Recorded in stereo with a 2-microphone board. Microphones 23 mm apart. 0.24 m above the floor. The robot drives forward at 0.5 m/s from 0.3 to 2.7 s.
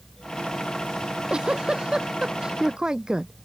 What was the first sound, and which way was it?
A giggle, 45° right (ahead or behind).